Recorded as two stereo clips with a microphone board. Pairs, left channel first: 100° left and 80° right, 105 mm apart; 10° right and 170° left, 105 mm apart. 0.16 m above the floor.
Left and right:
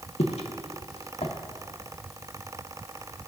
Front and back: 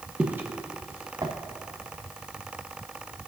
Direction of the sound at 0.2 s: 95° left.